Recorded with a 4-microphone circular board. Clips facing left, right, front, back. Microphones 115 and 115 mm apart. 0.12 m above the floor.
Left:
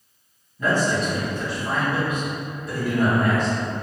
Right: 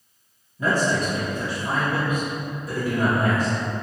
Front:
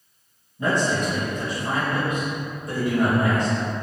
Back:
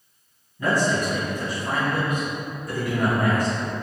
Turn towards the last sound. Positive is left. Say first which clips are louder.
# even, even
turn(degrees=-25)